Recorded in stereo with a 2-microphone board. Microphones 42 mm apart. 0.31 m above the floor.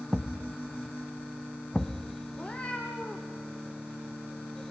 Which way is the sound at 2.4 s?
25° left (ahead or behind).